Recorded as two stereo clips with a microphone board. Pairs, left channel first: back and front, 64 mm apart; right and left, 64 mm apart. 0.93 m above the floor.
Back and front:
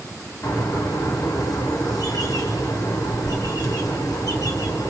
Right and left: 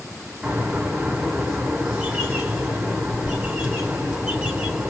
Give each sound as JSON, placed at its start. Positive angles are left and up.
{"t": 0.4, "sound": "a bird", "azimuth_deg": 165, "distance_m": 2.5}